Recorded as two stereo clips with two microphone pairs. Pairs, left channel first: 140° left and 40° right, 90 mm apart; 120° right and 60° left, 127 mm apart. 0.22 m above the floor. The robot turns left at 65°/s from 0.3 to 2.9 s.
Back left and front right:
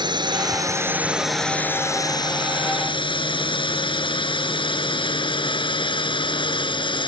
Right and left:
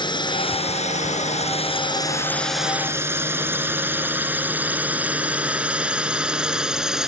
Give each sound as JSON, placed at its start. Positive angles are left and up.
{"t": 0.0, "sound": "a drone", "azimuth_deg": -70}